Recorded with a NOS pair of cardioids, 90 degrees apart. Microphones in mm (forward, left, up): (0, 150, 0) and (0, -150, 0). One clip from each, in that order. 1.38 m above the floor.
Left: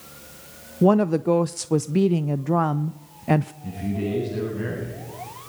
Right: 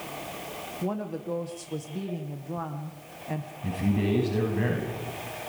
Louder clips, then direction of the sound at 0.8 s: Left 16 dB; 65° left.